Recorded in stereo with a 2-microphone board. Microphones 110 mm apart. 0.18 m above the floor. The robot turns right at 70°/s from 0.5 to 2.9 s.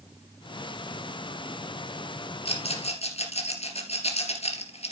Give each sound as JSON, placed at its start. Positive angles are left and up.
{"t": 2.5, "sound": "a rattle", "side_deg": 60, "distance_m": 2.5}